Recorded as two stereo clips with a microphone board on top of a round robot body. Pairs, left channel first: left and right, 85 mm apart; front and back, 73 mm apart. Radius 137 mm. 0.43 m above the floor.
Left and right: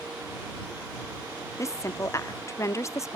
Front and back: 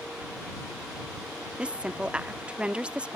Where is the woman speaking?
115° left.